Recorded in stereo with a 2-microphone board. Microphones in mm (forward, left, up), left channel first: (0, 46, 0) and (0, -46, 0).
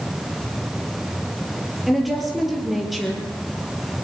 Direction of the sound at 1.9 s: Centre (ahead or behind).